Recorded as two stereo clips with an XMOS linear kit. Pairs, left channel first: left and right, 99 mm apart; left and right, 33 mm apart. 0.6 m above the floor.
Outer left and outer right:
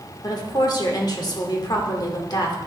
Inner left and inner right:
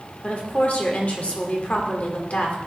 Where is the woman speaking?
50° left (ahead or behind), 1.6 m.